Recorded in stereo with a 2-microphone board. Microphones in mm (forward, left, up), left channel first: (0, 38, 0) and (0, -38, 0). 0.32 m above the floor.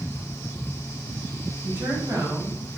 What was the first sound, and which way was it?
A woman speaking, 30° right (ahead or behind).